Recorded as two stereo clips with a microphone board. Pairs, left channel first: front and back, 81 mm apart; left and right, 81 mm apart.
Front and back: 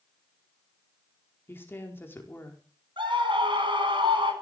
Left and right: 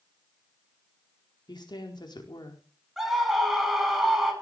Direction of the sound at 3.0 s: 175° right.